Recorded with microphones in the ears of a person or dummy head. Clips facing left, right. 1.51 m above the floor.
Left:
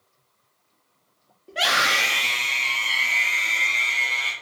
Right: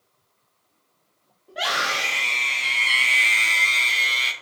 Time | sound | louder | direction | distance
1.5 | a scream | left 2 dB | 35° left (ahead or behind) | 0.9 m